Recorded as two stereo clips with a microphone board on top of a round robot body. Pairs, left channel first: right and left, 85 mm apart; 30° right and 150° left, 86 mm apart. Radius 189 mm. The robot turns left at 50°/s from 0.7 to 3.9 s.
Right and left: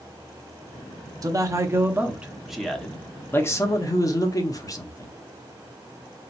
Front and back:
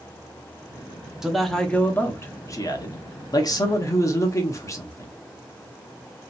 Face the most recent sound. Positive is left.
turn(degrees=-65)